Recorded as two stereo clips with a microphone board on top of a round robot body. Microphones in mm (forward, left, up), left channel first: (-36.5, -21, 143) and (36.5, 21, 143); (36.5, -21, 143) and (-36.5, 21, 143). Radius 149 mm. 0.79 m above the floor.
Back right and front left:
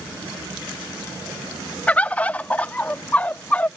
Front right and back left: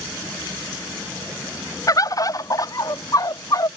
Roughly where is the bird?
Right.